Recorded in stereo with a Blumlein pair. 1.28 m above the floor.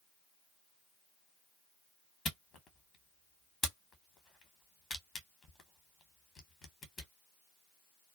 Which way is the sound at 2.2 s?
25° left.